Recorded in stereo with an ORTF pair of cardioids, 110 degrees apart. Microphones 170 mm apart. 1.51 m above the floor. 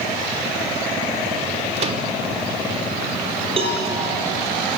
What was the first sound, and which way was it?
A microwave, 40° right.